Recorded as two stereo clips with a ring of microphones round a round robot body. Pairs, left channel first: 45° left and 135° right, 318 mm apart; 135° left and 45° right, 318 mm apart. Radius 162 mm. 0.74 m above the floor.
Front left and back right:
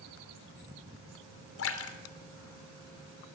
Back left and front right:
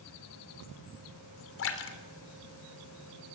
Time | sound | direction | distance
1.6 | a splash | 90° left | 3 m